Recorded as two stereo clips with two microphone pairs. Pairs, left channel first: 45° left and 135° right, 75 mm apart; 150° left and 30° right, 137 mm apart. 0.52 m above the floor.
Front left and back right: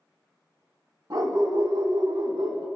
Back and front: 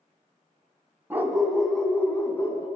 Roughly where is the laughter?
No laughter in this recording.